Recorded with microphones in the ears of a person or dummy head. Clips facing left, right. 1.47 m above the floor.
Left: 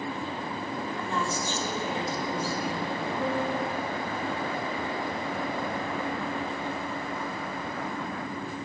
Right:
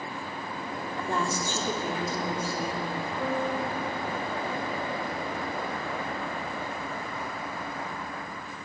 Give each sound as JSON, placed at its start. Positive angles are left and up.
{"t": 1.0, "sound": "a woman speaking", "side_deg": -40, "distance_m": 3.0}
{"t": 3.2, "sound": "a piano", "side_deg": 5, "distance_m": 1.3}